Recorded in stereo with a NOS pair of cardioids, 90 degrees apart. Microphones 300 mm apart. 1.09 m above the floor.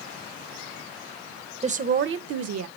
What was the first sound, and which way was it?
A woman speaking, 20° right.